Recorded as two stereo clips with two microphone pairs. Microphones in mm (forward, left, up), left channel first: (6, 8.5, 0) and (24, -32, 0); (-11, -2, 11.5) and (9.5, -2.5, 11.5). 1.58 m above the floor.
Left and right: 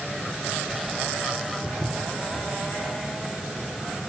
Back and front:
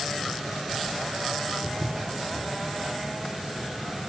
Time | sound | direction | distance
1.6 | footsteps | 30° left | 3 m